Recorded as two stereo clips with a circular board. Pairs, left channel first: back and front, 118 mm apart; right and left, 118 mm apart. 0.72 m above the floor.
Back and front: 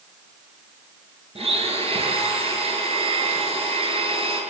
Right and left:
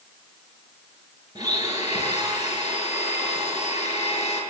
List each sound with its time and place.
1.4 s a blender: 35° left, 8 m